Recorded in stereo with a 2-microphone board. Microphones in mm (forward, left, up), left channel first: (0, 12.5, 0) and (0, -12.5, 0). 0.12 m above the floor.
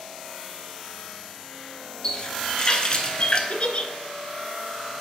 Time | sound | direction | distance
2.0 | a running tap | 30° left (ahead or behind) | 1.1 m
3.5 | a giggle | 45° left (ahead or behind) | 0.7 m